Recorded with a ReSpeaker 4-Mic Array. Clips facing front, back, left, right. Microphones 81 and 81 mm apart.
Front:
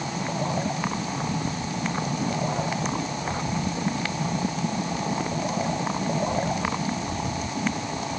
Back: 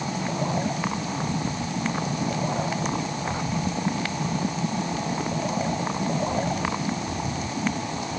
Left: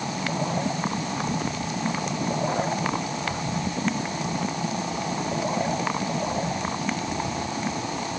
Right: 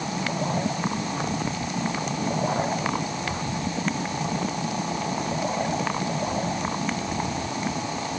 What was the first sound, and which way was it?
Only background noise.